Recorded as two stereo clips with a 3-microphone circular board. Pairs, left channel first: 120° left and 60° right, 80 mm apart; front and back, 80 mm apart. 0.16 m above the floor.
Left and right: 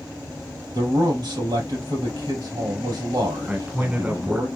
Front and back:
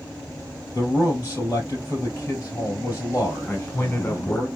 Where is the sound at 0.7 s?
55° right, 3 m.